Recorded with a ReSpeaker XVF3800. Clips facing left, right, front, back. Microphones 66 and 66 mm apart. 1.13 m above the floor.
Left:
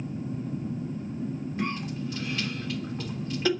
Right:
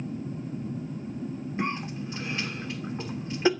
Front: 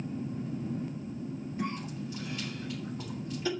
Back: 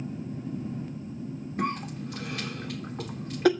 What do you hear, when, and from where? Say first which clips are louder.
1.6 s a cough: right 1 dB, back 7 dB; 155° right, 2.5 m